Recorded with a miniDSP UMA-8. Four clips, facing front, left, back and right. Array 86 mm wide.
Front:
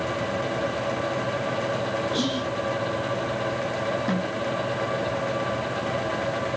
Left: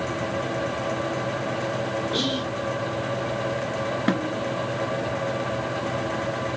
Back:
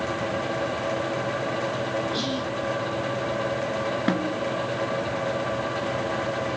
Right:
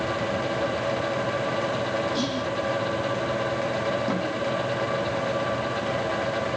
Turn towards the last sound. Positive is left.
turn(degrees=130)